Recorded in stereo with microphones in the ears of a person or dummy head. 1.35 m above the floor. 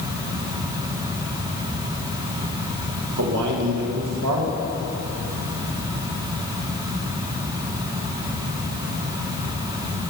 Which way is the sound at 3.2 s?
80° right.